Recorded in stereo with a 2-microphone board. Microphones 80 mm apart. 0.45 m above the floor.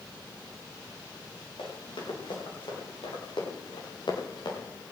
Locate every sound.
1.6 s running footsteps: 85° left, 8.5 m; by 4.6 s 65° left (ahead or behind), 6.5 m